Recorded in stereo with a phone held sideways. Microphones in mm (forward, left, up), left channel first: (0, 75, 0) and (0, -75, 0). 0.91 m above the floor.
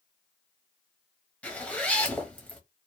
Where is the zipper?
10° left (ahead or behind), 0.8 m.